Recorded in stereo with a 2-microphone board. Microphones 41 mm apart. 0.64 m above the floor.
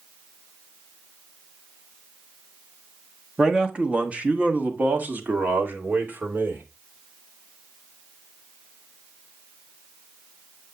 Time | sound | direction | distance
3.4 | a man speaking | 15° right (ahead or behind) | 1.1 m